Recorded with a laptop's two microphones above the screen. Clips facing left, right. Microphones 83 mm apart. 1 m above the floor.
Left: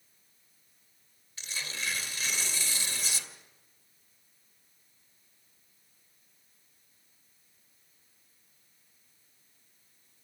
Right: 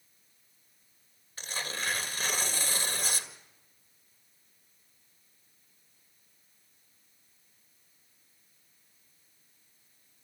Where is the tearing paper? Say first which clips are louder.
Right 3 dB; 45° right (ahead or behind), 2 m.